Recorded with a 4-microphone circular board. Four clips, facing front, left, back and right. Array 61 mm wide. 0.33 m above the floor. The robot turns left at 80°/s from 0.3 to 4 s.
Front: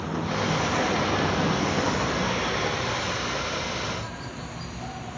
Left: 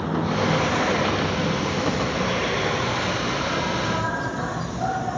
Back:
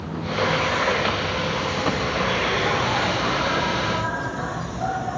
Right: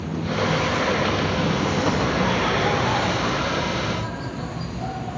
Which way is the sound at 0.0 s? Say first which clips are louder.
Left 2 dB, back 3 dB; 80° left.